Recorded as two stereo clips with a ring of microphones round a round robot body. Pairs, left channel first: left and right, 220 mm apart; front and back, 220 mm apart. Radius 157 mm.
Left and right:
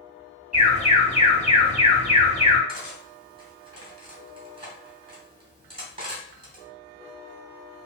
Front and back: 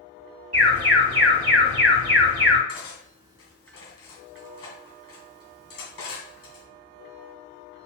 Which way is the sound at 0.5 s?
135° right.